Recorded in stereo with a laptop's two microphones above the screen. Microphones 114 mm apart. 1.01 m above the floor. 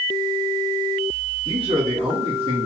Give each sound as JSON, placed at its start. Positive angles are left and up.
{"t": 1.4, "sound": "a man speaking", "side_deg": -45, "distance_m": 1.6}